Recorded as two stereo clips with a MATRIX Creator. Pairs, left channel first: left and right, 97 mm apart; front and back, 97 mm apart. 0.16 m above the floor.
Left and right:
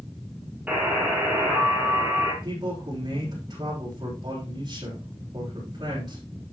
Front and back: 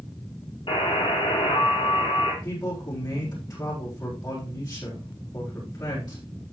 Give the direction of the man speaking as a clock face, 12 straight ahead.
2 o'clock.